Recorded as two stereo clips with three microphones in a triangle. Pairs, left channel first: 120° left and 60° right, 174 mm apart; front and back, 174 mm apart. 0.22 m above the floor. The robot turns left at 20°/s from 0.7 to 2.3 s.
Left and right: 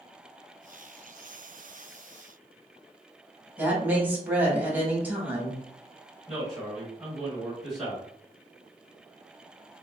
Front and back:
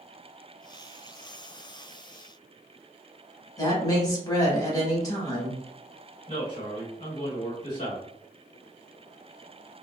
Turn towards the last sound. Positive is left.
turn(degrees=30)